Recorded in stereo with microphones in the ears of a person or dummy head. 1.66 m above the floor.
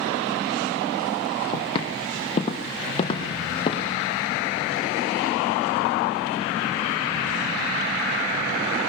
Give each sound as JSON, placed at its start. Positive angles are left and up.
{"t": 1.5, "sound": "footsteps", "side_deg": 30, "distance_m": 3.5}